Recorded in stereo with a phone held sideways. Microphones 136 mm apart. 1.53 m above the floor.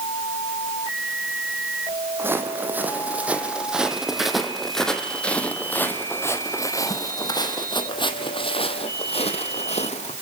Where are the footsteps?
15° right (ahead or behind), 4 m; by 10.1 s 55° left (ahead or behind), 3.5 m.